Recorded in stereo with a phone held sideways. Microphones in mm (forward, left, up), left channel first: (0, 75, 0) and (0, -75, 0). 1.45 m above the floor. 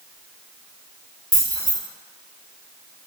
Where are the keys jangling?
35° right (ahead or behind), 1.6 m.